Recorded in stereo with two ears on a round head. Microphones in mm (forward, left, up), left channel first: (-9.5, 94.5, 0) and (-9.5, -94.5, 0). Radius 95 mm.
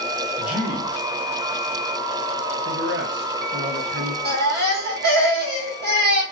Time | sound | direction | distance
0.4 | a man speaking | 5° right (ahead or behind) | 1.5 m
2.6 | a man speaking | 55° right (ahead or behind) | 0.8 m
4.2 | a baby crying | 55° right (ahead or behind) | 1.6 m